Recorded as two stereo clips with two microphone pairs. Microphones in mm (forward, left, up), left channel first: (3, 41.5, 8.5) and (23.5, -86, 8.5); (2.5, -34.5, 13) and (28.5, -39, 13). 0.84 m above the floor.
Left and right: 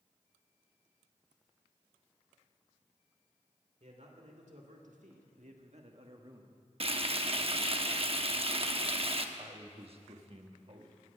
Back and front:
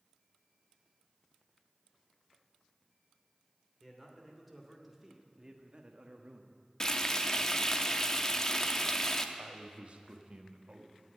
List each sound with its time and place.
3.8 s a man speaking: 105° right, 3 m; by 6.6 s 15° right, 1.3 m
6.8 s frying: 120° right, 0.8 m
9.3 s a man speaking: 45° right, 1.3 m